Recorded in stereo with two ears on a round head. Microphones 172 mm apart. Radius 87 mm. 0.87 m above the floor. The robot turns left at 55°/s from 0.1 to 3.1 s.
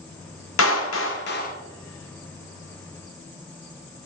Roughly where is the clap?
Left.